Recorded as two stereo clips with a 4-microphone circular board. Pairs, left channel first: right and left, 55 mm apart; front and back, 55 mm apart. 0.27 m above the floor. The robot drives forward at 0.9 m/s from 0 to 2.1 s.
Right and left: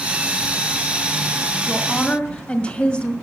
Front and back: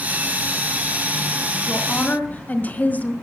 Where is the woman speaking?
25° right, 1.8 m; by 3.1 s 30° right, 1.6 m.